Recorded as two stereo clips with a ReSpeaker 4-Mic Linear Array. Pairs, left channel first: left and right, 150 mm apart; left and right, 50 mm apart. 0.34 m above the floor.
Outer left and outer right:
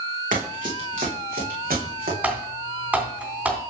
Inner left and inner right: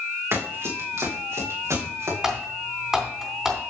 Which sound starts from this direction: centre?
Typing on a keyboard, at 2.2 s.